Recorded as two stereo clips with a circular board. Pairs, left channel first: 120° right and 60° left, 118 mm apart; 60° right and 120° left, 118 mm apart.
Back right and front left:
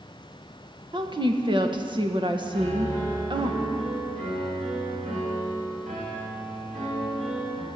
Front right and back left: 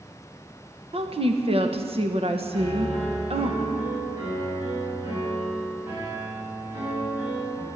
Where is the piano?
50° left, 6.5 m.